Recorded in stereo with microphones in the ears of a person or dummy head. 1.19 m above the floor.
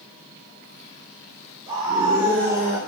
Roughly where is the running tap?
I don't hear a running tap.